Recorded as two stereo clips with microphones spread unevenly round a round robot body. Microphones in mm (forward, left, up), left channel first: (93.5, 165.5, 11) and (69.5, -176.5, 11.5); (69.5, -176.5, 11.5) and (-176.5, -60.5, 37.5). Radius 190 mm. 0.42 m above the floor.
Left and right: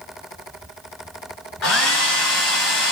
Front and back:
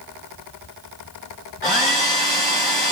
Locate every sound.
1.6 s a hair dryer: 40° left, 1.8 m